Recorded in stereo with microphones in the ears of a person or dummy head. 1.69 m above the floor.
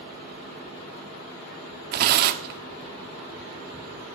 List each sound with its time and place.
1.9 s tearing paper: 50° right (ahead or behind), 0.6 m